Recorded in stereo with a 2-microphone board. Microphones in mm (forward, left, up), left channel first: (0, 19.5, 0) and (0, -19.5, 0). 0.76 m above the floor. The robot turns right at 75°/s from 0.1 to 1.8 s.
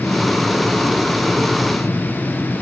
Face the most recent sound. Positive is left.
No sound to turn to.